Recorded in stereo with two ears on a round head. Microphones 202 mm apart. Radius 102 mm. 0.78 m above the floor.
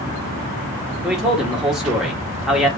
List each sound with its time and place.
1.0 s a man speaking: 5° right (ahead or behind), 1.2 m